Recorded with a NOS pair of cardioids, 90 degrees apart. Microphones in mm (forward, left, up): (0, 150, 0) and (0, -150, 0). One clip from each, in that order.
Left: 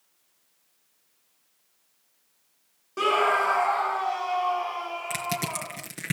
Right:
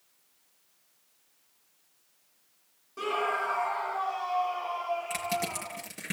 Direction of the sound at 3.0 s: 50° left.